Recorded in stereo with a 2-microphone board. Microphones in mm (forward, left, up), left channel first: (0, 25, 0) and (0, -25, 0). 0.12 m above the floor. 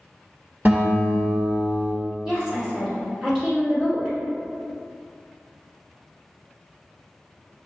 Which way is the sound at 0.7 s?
45° right (ahead or behind).